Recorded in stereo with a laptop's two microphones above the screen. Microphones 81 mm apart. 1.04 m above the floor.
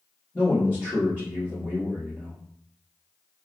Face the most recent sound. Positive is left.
turn(degrees=30)  # may be behind; listen again after turning